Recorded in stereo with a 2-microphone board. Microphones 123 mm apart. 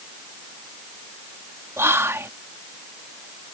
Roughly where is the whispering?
Right.